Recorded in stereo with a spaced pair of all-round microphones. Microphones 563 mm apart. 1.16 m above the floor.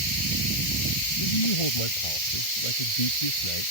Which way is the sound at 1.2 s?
65° left (ahead or behind).